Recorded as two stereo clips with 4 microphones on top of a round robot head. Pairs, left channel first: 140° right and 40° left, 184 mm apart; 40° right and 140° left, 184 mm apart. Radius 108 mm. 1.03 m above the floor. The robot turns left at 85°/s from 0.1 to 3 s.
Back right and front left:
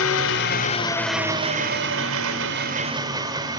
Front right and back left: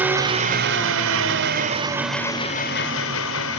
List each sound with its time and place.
0.0 s an engine running: 140° right, 1.9 m; by 3.6 s 30° right, 1.9 m